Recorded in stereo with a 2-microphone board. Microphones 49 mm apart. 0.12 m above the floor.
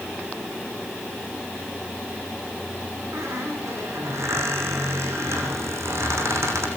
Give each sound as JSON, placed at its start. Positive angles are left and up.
{"t": 3.1, "sound": "a squeak", "side_deg": -75, "distance_m": 5.5}